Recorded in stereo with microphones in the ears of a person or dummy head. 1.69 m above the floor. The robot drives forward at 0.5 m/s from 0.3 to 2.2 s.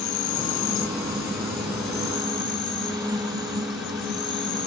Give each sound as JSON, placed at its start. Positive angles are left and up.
{"t": 0.0, "sound": "an insect", "side_deg": 70, "distance_m": 1.6}